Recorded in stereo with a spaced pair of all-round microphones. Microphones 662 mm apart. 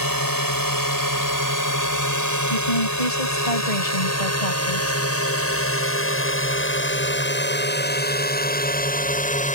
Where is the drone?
30° left (ahead or behind); by 9.6 s 10° left (ahead or behind).